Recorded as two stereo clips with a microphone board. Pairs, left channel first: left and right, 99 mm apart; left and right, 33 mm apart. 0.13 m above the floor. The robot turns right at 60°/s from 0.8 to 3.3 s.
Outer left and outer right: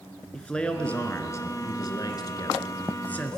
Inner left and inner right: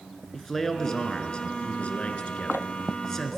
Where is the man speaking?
15° left, 1.3 m; by 3.4 s 165° left, 1.3 m.